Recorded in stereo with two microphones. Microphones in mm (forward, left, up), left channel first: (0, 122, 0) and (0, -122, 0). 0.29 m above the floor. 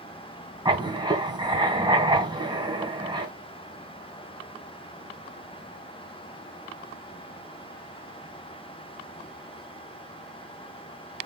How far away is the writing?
About 2.5 m.